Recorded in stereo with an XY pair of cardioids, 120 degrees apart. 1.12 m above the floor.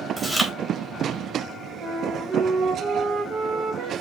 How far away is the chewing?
About 1.9 m.